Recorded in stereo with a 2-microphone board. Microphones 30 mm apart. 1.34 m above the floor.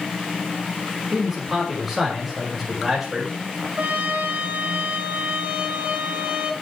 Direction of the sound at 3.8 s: 60° right (ahead or behind).